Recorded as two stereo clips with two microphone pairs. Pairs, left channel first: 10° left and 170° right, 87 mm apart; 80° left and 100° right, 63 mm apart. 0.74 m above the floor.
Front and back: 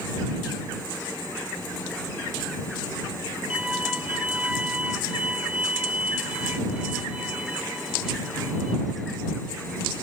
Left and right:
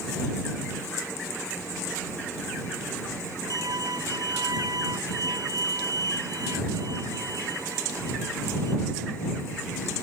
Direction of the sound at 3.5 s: 95° right.